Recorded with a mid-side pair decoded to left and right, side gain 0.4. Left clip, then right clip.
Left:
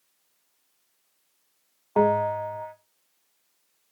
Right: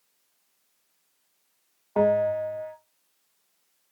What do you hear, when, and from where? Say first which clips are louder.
2.0 s a bell: even; 15° left, 0.9 m